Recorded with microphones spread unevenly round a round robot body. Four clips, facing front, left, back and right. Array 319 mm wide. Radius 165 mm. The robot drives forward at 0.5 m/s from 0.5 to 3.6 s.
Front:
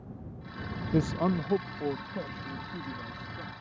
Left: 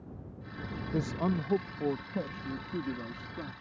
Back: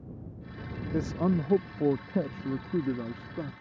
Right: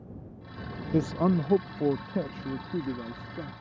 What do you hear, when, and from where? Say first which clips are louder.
0.9 s a man speaking: right 6 dB, front 1 dB; 45° right; by 3.5 s 170° right